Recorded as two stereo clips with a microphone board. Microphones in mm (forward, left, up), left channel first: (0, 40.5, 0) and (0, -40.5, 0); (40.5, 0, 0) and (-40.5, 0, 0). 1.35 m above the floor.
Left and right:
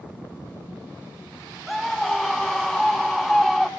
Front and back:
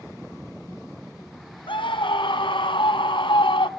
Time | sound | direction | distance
1.7 | a scream | straight ahead | 1.3 m